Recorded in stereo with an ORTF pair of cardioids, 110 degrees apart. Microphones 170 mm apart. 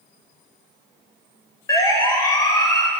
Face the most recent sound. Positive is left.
turn(degrees=20)